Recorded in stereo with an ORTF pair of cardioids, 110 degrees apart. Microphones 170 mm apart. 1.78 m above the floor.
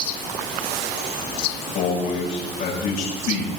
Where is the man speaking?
70° left, 8.5 m.